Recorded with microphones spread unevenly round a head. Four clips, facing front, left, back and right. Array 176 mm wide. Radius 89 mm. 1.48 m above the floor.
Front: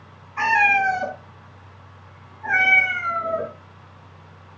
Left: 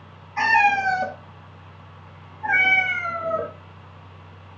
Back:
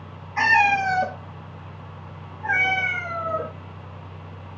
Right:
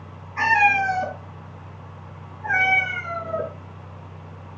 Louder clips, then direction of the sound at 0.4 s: Even, even; 145° left.